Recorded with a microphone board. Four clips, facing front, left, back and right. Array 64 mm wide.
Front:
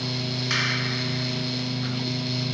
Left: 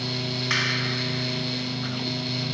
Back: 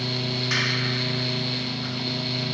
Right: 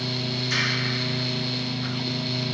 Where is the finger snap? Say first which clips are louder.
Left 1 dB, even; 65° left, 1.5 m.